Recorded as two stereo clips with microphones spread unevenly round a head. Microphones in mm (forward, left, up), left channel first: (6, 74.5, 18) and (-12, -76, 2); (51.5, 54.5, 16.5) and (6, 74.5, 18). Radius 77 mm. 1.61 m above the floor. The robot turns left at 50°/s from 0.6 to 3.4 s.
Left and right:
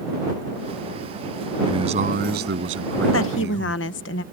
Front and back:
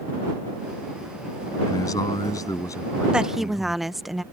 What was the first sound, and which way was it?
A man speaking, 30° right.